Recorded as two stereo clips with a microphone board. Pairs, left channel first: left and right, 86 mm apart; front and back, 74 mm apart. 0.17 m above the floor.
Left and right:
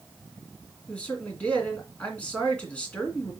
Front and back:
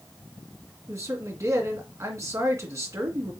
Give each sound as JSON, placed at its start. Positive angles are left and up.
{"t": 0.9, "sound": "a man speaking", "azimuth_deg": 160, "distance_m": 2.0}